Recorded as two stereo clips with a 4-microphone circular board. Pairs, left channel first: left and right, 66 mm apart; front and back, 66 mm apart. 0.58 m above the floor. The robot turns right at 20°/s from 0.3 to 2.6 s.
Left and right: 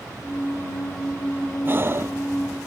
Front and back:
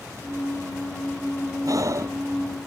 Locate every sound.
1.6 s breathing: 150° right; by 2.2 s 135° right